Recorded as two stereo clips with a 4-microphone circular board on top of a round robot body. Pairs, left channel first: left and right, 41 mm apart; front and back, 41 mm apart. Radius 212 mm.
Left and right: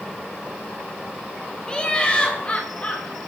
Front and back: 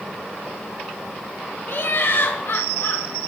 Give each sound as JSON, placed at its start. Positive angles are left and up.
{"t": 1.7, "sound": "laughter", "azimuth_deg": 20, "distance_m": 1.5}